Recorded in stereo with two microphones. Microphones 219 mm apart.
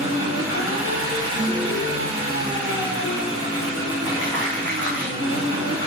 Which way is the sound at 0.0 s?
75° left (ahead or behind).